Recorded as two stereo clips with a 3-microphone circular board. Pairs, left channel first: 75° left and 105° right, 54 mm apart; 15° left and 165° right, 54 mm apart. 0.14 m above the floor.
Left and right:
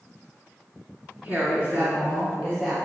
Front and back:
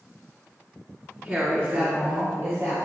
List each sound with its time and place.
1.2 s a woman speaking: 140° right, 1.2 m; by 2.9 s straight behind, 2.5 m